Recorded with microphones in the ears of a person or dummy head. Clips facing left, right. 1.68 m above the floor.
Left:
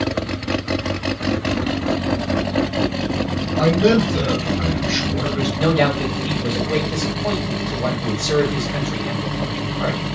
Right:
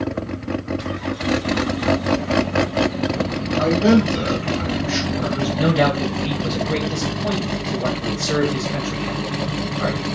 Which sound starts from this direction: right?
A man speaking, at 5.6 s.